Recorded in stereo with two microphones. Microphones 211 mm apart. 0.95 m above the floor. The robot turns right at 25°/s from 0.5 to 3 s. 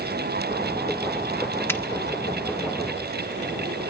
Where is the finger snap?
10° left (ahead or behind), 1.4 m; by 1.8 s 15° left (ahead or behind), 1.4 m.